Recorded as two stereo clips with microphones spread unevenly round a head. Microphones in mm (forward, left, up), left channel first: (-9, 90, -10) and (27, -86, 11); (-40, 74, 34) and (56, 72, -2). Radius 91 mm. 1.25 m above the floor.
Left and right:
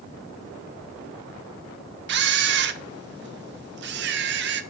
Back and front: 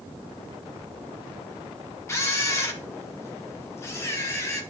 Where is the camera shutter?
100° right, 0.8 m.